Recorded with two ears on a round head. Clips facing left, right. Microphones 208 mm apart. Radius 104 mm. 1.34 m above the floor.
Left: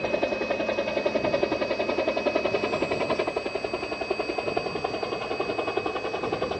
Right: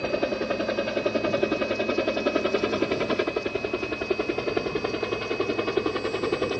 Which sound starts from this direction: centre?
A helicopter, at 0.0 s.